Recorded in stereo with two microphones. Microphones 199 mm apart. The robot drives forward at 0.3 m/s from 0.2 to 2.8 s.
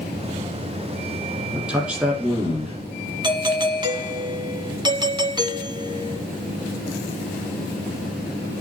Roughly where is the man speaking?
Centre.